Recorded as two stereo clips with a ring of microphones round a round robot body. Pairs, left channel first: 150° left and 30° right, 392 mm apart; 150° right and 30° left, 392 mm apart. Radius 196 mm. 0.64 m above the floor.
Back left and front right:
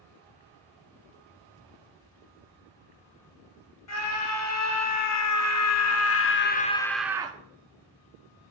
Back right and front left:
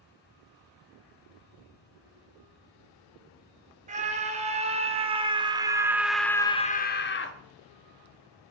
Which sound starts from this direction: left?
A scream, at 3.9 s.